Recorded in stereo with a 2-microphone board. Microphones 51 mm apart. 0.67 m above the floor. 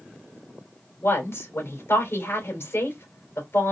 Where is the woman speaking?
55° left (ahead or behind), 3 m.